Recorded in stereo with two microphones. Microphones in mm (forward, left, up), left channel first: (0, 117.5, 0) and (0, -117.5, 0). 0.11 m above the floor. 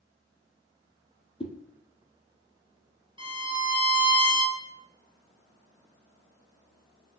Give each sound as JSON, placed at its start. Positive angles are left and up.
{"t": 1.4, "sound": "a whoosh", "side_deg": 20, "distance_m": 0.7}
{"t": 3.2, "sound": "a violin", "side_deg": -20, "distance_m": 1.5}